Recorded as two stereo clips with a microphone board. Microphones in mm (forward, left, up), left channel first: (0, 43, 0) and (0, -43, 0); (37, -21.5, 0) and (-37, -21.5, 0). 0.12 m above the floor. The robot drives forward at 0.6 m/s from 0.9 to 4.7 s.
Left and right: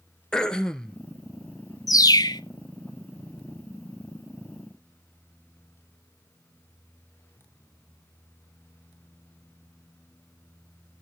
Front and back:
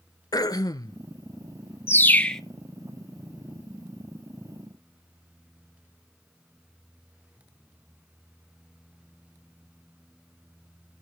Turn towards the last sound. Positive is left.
turn(degrees=160)